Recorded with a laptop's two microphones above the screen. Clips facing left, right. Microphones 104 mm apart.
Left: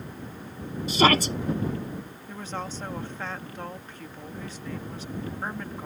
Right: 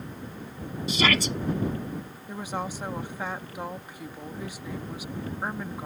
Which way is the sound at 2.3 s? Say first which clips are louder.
Right 3 dB; 10° right (ahead or behind).